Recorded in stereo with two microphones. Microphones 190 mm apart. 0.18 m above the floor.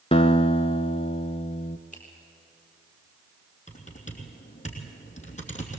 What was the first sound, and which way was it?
A guitar, 30° left (ahead or behind).